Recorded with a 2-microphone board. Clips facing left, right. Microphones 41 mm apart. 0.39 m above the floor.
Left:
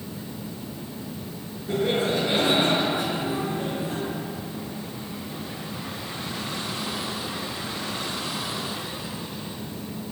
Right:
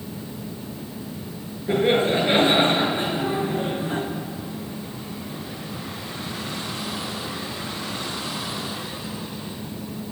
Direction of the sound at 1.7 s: 35° right (ahead or behind).